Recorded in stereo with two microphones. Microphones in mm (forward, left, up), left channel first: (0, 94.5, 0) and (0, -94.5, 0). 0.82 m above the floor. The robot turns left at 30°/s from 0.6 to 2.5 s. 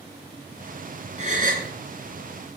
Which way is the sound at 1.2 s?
40° right (ahead or behind).